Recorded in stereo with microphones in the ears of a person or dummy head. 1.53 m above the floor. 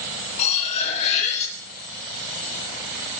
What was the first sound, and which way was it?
Cutlery clinking, 40° left (ahead or behind).